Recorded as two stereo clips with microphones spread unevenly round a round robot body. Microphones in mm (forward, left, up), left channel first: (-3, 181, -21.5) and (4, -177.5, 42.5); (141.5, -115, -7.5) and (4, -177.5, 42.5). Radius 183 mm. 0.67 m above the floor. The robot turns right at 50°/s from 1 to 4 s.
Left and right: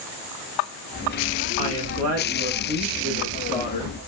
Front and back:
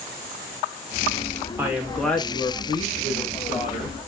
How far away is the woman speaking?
About 1.1 m.